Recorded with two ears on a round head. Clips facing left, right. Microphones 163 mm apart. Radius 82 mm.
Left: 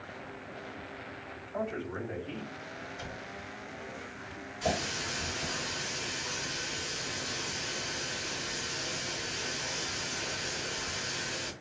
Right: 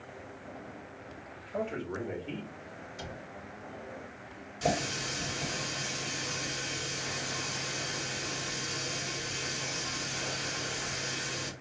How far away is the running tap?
About 3 m.